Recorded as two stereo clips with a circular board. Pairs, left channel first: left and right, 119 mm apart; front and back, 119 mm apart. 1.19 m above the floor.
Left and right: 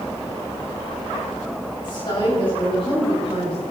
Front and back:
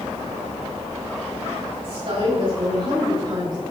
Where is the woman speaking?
140° left, 6 m; by 3.6 s 125° left, 5.5 m.